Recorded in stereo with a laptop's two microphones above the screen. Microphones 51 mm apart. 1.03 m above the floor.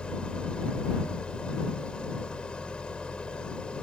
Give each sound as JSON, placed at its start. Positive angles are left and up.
{"t": 0.0, "sound": "an engine running", "side_deg": 20}